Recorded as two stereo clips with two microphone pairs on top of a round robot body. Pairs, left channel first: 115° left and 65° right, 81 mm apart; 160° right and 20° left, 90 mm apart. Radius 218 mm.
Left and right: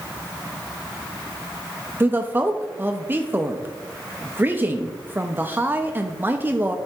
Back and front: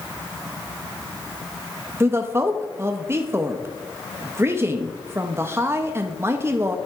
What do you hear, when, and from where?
2.0 s a woman speaking: 20° right, 0.9 m